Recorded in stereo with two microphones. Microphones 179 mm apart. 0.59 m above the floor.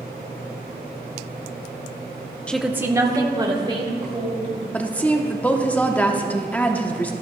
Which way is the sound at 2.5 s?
5° left (ahead or behind).